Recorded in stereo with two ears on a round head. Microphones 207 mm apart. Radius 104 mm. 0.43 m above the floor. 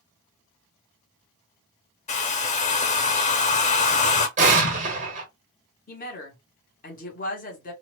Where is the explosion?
35° right (ahead or behind), 0.9 m.